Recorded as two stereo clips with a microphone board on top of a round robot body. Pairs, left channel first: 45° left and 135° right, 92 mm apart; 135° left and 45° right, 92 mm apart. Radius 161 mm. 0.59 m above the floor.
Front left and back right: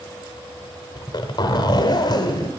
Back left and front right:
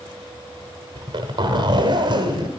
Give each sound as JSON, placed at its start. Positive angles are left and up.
{"t": 0.9, "sound": "a zipper", "azimuth_deg": -5, "distance_m": 0.8}